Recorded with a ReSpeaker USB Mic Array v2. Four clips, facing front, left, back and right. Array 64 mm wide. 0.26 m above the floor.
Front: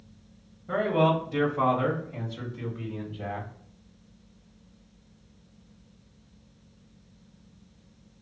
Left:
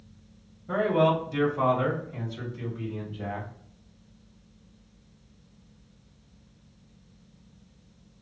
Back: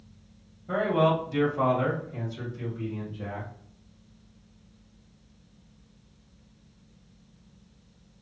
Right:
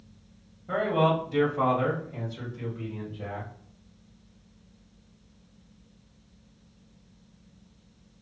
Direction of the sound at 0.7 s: 95° right.